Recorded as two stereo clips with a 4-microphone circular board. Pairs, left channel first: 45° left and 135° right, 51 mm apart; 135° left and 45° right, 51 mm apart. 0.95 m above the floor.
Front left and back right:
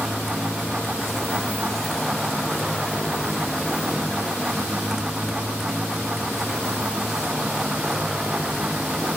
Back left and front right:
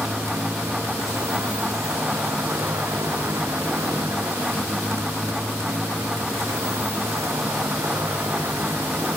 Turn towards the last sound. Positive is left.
turn(degrees=-60)